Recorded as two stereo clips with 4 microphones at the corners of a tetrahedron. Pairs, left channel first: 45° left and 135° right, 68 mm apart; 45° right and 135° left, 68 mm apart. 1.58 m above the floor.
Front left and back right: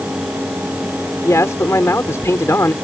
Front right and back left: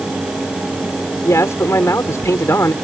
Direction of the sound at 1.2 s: Straight ahead.